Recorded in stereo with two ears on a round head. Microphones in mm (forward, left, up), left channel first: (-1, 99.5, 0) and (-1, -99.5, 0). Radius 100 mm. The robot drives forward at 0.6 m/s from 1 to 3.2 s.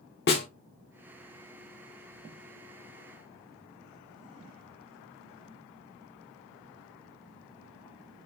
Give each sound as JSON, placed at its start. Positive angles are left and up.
{"t": 0.3, "sound": "a snare drum", "side_deg": 50, "distance_m": 1.0}